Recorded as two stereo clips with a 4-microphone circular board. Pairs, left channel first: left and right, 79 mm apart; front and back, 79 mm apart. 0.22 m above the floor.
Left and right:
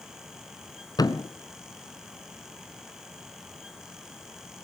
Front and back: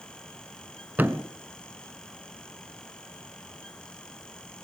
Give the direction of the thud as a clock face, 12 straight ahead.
8 o'clock.